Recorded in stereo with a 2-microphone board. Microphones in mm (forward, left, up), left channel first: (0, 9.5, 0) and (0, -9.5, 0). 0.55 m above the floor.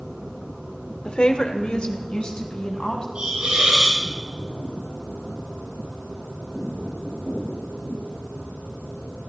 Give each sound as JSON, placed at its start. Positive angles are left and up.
{"t": 1.1, "sound": "a woman speaking", "side_deg": 60, "distance_m": 1.1}
{"t": 3.1, "sound": "a hiss", "side_deg": -65, "distance_m": 5.5}